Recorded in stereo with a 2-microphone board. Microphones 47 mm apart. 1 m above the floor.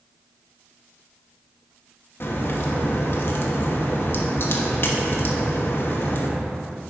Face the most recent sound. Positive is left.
turn(degrees=50)  # may be behind; listen again after turning